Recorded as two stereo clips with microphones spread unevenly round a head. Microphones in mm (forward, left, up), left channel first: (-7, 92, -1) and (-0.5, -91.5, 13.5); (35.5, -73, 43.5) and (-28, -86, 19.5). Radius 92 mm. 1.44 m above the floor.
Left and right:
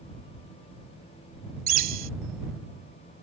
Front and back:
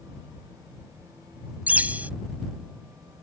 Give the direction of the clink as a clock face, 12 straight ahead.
No clink in this recording.